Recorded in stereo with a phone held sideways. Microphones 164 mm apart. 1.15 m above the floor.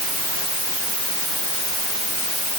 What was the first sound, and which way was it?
Only background noise.